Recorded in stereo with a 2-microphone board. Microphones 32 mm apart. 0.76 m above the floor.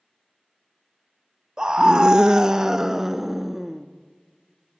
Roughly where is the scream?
Right.